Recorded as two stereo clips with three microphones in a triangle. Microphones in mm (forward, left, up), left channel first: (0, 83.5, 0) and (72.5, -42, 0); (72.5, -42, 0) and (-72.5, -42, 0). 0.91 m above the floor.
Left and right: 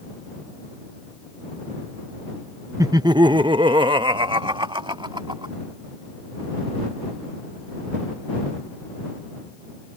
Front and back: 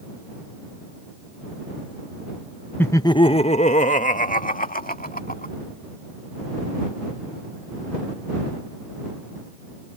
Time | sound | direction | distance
2.8 | laughter | 50° right | ?